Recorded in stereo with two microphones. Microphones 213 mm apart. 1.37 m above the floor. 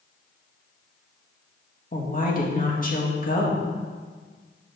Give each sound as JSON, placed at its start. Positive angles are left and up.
{"t": 1.9, "sound": "a woman speaking", "side_deg": 40, "distance_m": 2.0}